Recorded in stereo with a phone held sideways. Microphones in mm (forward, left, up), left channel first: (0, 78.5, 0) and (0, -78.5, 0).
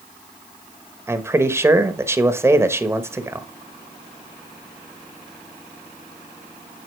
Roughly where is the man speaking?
Centre.